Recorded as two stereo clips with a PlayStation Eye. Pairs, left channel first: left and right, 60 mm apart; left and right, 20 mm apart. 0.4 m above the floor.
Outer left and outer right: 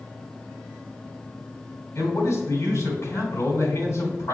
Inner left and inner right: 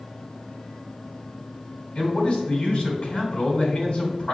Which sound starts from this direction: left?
A man speaking, at 1.9 s.